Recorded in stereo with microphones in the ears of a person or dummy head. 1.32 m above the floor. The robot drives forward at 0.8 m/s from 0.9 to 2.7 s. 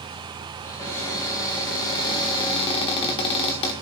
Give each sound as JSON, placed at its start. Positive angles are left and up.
{"t": 0.6, "sound": "a cupboard door", "side_deg": 20, "distance_m": 3.5}